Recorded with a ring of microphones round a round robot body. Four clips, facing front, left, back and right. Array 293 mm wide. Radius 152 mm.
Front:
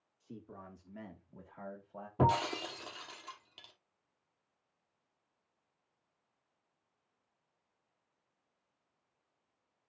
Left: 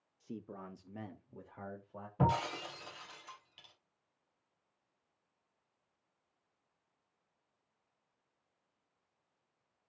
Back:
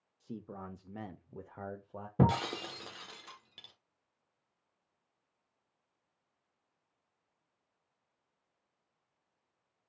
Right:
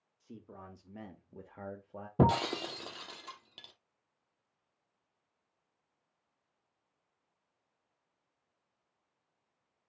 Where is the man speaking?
140° left, 1.5 m; by 2.1 s 145° right, 1.7 m.